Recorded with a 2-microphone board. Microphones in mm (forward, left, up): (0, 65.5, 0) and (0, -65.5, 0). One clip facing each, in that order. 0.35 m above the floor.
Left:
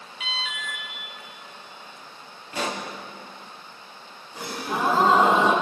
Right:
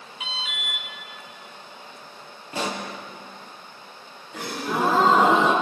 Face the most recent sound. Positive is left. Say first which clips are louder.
# right 2 dB
turn(degrees=-80)